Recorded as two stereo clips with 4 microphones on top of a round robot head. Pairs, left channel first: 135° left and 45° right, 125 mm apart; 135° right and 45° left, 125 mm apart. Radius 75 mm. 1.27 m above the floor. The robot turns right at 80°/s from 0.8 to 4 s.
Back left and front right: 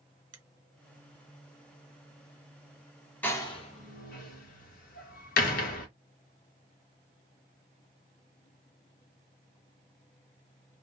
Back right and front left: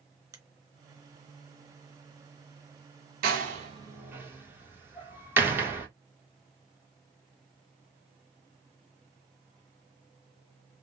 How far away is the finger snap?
About 0.9 m.